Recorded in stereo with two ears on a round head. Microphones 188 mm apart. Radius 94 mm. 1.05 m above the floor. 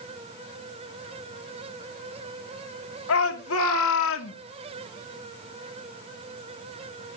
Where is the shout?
75° left (ahead or behind), 2.5 m; by 4.4 s 70° left (ahead or behind), 1.6 m.